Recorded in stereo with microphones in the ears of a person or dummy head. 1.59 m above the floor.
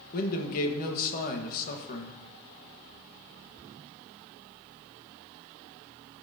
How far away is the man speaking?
About 1.5 m.